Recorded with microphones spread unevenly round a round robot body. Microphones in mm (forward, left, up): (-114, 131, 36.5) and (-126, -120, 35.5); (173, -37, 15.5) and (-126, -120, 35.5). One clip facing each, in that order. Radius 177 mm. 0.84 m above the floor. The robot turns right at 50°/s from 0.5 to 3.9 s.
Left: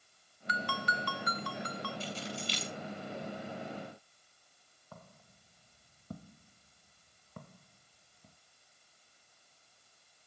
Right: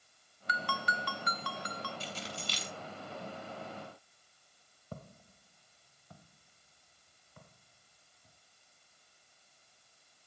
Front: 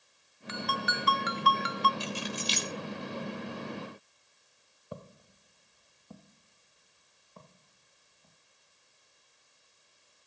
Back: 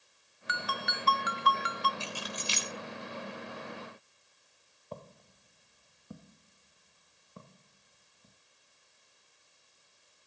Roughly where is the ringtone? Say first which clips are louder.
Left 2 dB, front 5 dB; right.